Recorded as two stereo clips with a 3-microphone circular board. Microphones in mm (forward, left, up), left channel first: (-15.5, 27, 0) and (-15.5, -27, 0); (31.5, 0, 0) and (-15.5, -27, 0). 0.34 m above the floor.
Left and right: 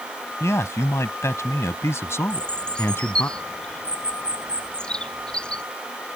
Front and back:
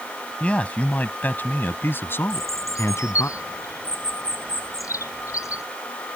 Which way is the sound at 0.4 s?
95° left.